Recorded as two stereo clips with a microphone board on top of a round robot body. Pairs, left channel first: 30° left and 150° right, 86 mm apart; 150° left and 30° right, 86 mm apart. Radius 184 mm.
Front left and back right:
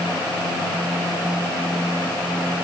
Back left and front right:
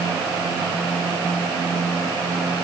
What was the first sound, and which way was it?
Only background noise.